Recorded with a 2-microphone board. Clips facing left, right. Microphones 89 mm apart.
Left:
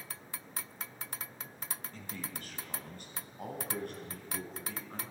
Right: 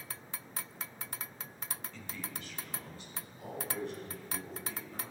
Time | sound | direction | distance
1.9 | a man speaking | 45° left (ahead or behind) | 2 m